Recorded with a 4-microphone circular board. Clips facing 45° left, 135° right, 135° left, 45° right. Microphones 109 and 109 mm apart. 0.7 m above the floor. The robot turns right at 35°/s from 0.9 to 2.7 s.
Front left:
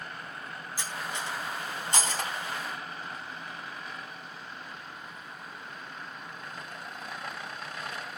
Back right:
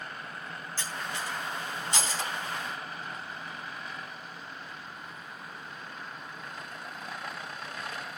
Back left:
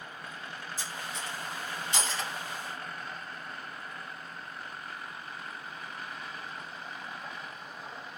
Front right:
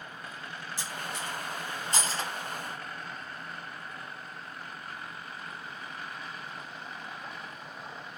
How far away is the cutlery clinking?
About 3 m.